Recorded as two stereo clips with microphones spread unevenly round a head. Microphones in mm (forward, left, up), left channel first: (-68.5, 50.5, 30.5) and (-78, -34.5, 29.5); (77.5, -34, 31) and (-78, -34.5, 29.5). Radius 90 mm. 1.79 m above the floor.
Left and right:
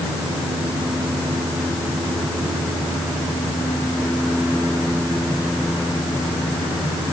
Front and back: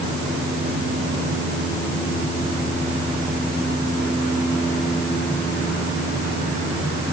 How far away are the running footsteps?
No running footsteps in this recording.